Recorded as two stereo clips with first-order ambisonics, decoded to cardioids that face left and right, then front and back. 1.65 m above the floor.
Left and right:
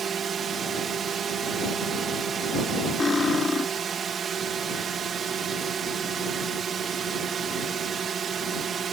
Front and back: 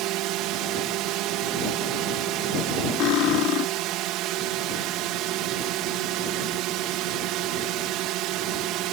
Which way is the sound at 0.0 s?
150° right.